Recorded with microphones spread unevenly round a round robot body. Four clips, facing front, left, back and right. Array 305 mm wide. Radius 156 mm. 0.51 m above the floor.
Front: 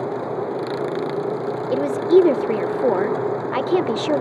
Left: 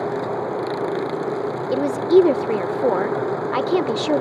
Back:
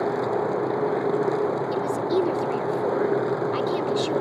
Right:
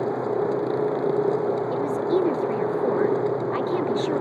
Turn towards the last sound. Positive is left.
turn(degrees=45)